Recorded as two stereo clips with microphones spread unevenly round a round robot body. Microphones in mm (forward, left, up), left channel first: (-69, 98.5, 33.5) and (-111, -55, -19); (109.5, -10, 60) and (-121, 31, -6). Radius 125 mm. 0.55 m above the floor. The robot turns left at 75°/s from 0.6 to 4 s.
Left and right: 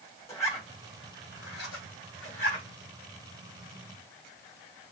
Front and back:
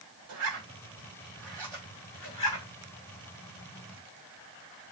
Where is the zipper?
155° left, 1.7 m; by 2.7 s straight ahead, 1.7 m.